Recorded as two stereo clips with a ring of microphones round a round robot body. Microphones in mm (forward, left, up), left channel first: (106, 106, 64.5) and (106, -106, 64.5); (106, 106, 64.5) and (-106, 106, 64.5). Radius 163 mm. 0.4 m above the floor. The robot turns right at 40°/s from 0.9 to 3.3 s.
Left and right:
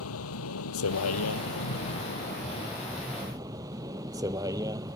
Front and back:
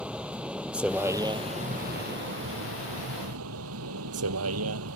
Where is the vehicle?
95° left; by 5.0 s 170° right.